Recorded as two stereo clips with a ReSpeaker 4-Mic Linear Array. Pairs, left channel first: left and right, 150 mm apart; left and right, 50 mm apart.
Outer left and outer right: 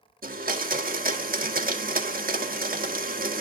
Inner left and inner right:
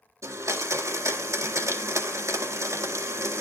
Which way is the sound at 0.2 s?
75° right (ahead or behind).